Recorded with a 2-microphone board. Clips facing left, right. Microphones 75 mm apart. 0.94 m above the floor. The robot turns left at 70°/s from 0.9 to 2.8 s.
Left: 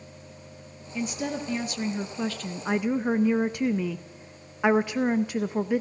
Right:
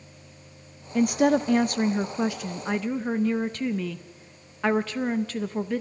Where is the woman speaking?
65° right, 0.7 m; by 5.8 s 165° left, 0.7 m.